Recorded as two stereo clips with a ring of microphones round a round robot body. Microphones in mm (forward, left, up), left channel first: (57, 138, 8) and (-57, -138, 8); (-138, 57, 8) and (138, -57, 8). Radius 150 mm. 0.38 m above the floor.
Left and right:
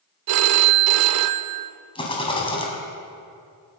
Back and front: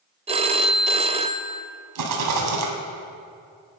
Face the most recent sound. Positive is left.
turn(degrees=-5)